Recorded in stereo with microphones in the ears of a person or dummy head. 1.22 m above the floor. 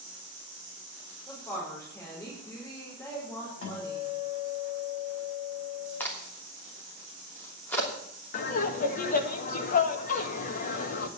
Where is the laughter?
50° left (ahead or behind), 1.6 m.